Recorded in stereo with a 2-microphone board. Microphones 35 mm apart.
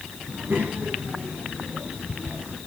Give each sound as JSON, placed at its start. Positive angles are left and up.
{"t": 0.3, "sound": "a child speaking", "side_deg": -80, "distance_m": 7.0}